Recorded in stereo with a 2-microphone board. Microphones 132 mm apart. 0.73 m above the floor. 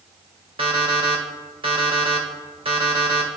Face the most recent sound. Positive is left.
turn(degrees=-45)  # may be behind; listen again after turning